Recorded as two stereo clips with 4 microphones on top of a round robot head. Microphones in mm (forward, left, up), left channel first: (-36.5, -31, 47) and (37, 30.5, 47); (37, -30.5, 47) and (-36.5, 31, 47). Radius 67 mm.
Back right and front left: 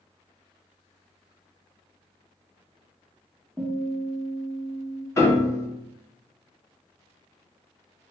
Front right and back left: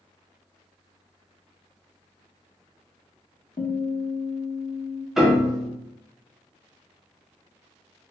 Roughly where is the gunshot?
No gunshot in this recording.